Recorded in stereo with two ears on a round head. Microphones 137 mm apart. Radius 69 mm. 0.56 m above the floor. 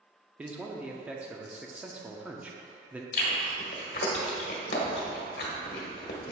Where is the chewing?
65° left (ahead or behind), 1.4 m.